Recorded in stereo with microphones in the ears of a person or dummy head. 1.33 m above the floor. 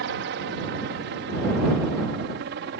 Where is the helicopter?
60° right (ahead or behind).